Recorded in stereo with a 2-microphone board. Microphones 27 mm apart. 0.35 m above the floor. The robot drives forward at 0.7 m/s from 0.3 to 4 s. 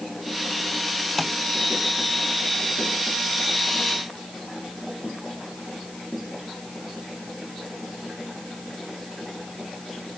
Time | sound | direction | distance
1.2 | tapping | 5° left (ahead or behind) | ?